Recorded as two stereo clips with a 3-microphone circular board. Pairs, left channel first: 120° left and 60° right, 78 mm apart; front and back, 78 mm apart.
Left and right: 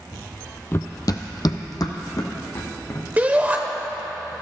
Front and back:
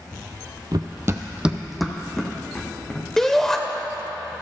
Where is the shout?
75° right, 0.9 m.